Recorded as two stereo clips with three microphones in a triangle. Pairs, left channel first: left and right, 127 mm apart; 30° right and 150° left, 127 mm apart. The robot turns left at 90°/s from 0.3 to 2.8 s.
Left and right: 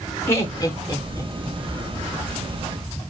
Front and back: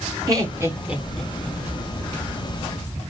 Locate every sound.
0.3 s laughter: 135° left, 0.8 m; by 1.6 s 20° left, 0.8 m